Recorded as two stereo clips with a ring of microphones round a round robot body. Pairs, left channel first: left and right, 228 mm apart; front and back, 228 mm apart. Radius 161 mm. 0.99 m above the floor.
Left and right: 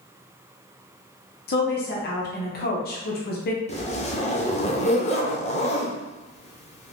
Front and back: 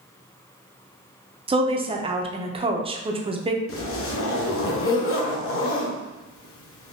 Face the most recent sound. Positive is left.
turn(degrees=25)